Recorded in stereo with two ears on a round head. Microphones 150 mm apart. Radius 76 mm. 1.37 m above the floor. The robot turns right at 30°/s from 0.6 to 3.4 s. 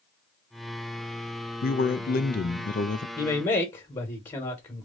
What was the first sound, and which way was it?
A man speaking, 85° left.